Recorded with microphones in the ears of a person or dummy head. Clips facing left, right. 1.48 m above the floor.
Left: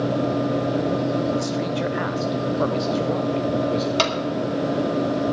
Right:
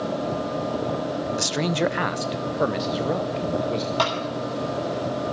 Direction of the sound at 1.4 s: 80° right.